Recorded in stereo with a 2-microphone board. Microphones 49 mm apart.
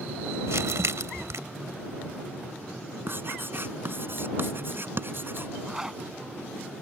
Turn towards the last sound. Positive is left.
turn(degrees=-10)  # may be behind; listen again after turning